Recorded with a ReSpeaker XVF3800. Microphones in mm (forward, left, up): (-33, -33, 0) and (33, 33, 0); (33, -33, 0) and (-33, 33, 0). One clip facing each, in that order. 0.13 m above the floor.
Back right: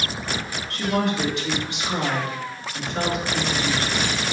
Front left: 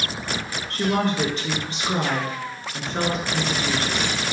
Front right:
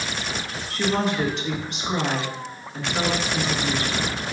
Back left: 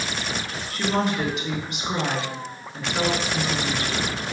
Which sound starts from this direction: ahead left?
A woman speaking, at 0.7 s.